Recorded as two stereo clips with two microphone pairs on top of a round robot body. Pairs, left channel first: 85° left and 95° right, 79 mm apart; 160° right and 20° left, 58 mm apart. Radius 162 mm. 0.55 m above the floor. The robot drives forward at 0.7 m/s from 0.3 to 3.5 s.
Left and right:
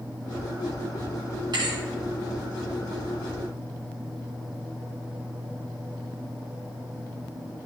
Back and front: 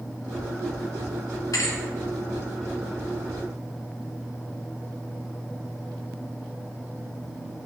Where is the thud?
130° right, 2 m; by 1.8 s 135° right, 2 m.